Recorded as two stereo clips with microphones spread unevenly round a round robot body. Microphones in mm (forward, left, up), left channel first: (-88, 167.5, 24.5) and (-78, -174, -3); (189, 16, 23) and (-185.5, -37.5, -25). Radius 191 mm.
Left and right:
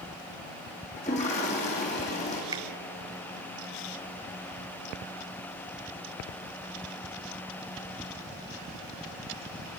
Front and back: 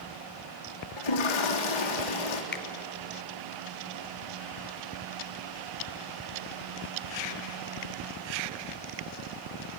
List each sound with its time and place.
1.0 s a toilet flushing: 20° left, 3 m
2.5 s a finger snap: 35° right, 1.0 m